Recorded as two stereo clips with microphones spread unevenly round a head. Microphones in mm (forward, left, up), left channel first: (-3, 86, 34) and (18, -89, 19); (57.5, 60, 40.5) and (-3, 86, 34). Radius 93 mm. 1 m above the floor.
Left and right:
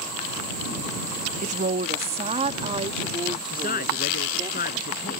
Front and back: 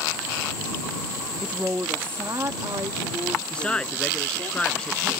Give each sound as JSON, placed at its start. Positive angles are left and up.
{"t": 1.4, "sound": "a woman speaking", "azimuth_deg": -130}
{"t": 3.5, "sound": "a man speaking", "azimuth_deg": 55}